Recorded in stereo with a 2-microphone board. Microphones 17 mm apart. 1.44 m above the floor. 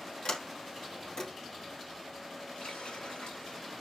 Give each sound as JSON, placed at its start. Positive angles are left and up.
{"t": 0.2, "sound": "a sliding door", "side_deg": 65, "distance_m": 3.0}
{"t": 2.5, "sound": "a running tap", "side_deg": 75, "distance_m": 8.0}